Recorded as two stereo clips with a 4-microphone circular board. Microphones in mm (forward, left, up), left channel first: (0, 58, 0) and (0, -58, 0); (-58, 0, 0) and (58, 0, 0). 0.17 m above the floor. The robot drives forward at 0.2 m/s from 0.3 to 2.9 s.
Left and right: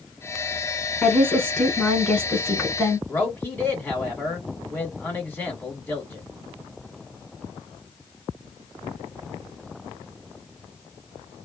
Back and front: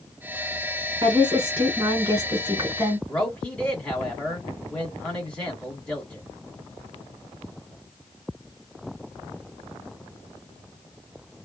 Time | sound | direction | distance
1.0 | a woman speaking | 10° left | 1.6 m
3.1 | a man speaking | 120° left | 1.6 m